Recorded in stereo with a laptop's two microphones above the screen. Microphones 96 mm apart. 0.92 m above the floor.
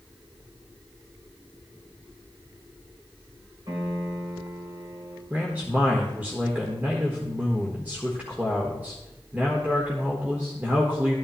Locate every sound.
3.7 s a piano: 50° right (ahead or behind), 4 m
5.3 s a man speaking: 20° right (ahead or behind), 1.4 m